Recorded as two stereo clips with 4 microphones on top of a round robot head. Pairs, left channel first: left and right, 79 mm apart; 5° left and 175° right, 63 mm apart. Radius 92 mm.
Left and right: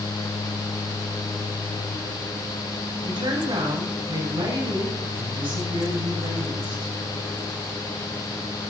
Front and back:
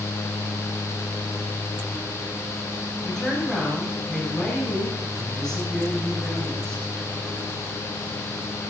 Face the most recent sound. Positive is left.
turn(degrees=-75)